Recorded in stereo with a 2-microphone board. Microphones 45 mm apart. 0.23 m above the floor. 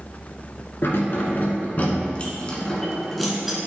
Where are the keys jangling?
60° left (ahead or behind), 1.8 m; by 3.6 s 10° right (ahead or behind), 1.7 m.